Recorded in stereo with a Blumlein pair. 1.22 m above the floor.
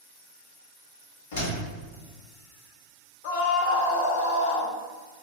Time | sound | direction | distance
1.3 | a door slam | 60° left | 1.3 m
3.2 | a scream | 50° left | 0.6 m